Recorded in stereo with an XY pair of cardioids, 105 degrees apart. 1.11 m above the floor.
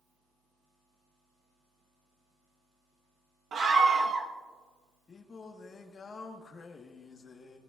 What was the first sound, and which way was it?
A scream, 55° right.